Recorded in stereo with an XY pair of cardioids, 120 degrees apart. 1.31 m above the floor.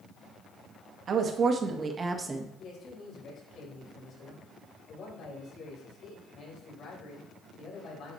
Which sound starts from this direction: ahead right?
A woman speaking, at 1.1 s.